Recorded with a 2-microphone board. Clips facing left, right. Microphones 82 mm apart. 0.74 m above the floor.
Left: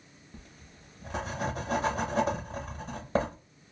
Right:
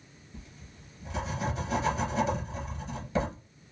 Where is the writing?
45° left (ahead or behind), 0.8 m.